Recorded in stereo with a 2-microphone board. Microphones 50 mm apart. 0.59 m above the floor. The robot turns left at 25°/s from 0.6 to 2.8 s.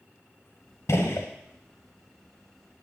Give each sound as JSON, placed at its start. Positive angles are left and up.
{"t": 0.9, "sound": "a gunshot", "side_deg": 70, "distance_m": 0.7}